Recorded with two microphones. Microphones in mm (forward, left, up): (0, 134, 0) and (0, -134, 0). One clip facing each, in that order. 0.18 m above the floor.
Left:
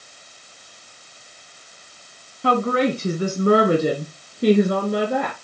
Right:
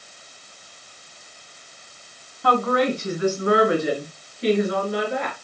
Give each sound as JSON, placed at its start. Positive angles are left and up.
{"t": 2.4, "sound": "a woman speaking", "side_deg": 30, "distance_m": 1.1}